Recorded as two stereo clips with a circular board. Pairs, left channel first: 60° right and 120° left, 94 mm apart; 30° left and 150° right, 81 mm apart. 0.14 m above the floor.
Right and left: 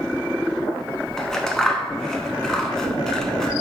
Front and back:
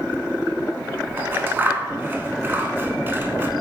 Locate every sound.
1.2 s scissors: 135° right, 0.6 m